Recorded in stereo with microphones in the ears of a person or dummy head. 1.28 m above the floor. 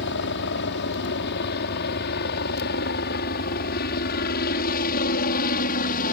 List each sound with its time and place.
0.0 s a helicopter: 60° left (ahead or behind); by 6.1 s 45° left (ahead or behind)